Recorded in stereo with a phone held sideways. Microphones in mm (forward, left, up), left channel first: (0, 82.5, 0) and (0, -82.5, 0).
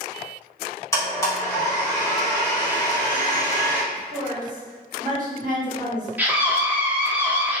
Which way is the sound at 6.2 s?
10° right (ahead or behind).